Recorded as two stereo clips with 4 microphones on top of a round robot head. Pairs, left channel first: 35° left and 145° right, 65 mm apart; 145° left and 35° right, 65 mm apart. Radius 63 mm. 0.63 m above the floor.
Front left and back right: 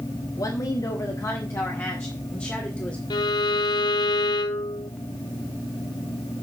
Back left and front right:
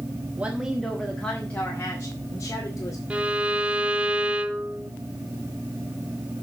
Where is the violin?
35° left, 1.0 m.